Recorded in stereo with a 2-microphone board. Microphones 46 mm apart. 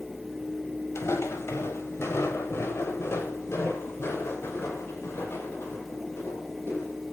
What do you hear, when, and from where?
0.9 s footsteps: 75° left (ahead or behind), 3 m; by 7.0 s 55° left (ahead or behind), 8.5 m